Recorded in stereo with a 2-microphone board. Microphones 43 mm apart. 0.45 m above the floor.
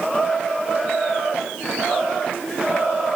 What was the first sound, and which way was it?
Only background noise.